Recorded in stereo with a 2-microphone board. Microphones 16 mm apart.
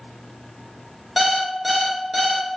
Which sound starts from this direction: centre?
An alarm clock, at 1.2 s.